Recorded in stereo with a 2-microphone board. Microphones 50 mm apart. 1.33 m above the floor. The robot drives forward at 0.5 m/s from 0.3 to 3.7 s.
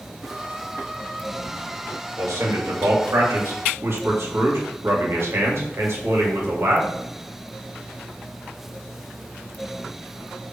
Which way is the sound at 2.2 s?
80° right.